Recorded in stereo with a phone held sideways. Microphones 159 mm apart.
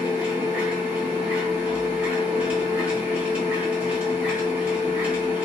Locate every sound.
0.0 s a machine running: 10° right (ahead or behind), 1.0 m